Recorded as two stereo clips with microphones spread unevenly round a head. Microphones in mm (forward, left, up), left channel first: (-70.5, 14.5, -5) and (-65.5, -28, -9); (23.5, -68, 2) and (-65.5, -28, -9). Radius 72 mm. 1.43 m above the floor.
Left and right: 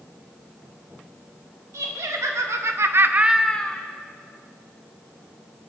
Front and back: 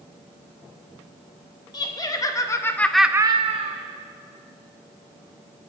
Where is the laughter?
70° right, 1.8 m; by 3.9 s 150° left, 0.9 m.